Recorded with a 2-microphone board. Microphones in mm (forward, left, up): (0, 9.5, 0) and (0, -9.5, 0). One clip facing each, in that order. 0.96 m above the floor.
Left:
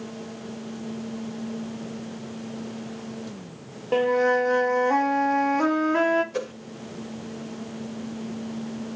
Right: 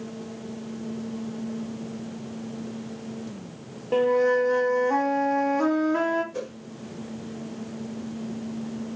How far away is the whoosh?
About 1.7 m.